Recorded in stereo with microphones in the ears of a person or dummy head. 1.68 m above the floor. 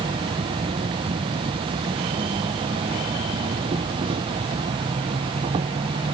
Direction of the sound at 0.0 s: 20° right (ahead or behind).